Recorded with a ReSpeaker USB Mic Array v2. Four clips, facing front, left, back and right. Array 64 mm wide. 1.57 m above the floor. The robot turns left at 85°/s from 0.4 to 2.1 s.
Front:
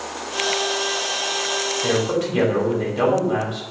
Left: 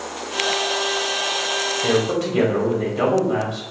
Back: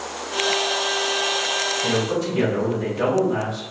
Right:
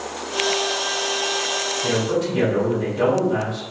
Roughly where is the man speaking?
Ahead left.